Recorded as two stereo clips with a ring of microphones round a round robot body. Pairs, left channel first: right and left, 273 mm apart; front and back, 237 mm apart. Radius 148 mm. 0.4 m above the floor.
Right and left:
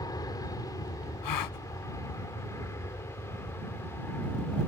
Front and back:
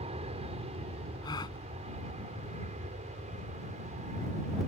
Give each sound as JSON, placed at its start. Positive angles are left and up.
{"t": 0.0, "sound": "an aircraft", "azimuth_deg": -150}
{"t": 1.2, "sound": "a gasp", "azimuth_deg": -75}